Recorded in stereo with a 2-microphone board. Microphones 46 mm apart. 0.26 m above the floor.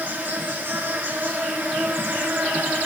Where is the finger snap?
I don't hear a finger snap.